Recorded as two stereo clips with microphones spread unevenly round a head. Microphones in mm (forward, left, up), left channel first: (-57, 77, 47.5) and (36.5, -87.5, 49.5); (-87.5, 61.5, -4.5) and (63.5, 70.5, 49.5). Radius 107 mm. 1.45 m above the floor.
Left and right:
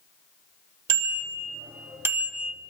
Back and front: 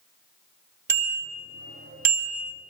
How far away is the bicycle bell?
About 2.5 m.